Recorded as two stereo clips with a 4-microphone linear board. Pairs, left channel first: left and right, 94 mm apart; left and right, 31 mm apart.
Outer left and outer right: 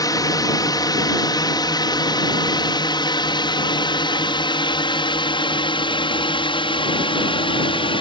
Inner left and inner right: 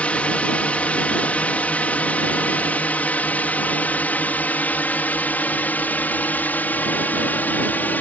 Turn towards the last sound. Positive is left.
turn(degrees=65)  # may be behind; listen again after turning